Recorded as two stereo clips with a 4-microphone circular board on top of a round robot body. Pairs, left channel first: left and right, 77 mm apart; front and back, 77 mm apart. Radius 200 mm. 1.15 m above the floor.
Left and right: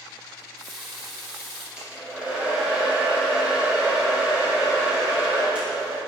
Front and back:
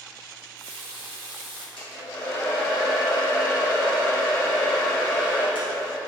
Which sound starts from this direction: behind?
A running tap, at 0.4 s.